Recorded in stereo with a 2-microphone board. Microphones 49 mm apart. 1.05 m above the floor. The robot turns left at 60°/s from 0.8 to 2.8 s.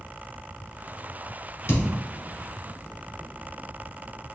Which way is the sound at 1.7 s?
55° left (ahead or behind).